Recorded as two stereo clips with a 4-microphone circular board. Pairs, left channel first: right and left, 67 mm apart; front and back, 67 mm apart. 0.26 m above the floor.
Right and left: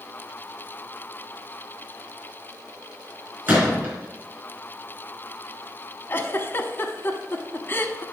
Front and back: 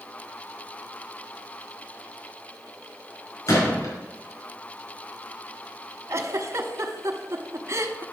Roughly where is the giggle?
Behind right.